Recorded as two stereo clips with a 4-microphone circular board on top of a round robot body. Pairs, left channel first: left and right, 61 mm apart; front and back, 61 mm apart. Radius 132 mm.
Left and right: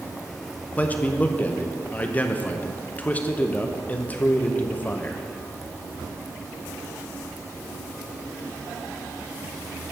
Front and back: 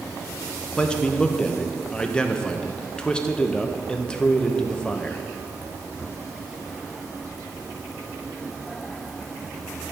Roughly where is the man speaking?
Ahead left.